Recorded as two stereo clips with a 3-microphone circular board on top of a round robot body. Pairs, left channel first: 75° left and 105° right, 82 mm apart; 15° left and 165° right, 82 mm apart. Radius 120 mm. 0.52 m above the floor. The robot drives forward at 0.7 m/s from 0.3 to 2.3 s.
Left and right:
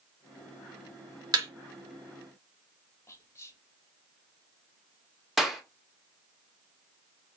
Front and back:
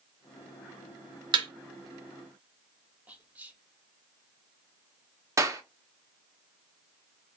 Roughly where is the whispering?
Behind left.